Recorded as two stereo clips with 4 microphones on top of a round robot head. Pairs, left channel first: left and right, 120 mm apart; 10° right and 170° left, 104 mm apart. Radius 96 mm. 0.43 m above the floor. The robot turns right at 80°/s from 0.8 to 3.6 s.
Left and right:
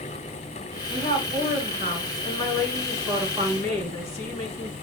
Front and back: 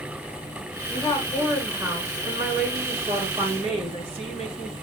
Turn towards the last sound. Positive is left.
turn(degrees=-120)